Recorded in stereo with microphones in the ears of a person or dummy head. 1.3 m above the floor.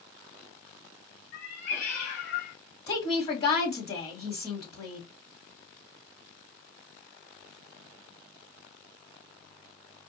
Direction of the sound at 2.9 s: 30° left (ahead or behind).